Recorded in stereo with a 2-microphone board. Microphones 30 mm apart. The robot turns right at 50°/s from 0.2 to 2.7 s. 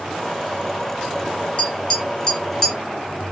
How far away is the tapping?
About 1.7 m.